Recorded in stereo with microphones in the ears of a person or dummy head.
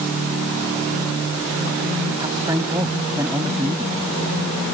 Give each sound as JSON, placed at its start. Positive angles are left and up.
{"t": 2.2, "sound": "a man speaking", "side_deg": -20}